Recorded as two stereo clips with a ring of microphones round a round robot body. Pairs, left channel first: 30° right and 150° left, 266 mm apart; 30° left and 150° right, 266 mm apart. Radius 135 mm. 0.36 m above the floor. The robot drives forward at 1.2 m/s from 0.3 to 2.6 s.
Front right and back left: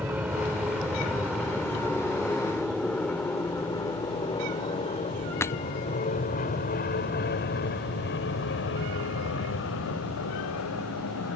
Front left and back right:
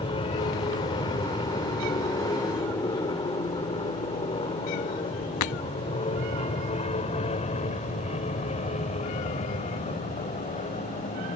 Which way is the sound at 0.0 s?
75° left.